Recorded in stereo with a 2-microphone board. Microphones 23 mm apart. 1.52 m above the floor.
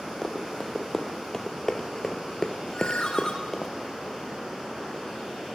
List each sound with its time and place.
0.2 s running footsteps: 20° left (ahead or behind), 4 m
2.7 s a ringtone: 40° left (ahead or behind), 6 m